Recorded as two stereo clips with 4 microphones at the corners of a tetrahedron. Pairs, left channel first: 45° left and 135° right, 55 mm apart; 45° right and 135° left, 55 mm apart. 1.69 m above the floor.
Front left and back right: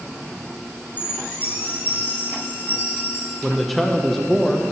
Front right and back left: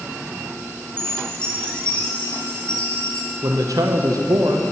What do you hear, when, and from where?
1.0 s a chime: 20° left, 1.7 m
3.4 s a man speaking: 135° left, 0.7 m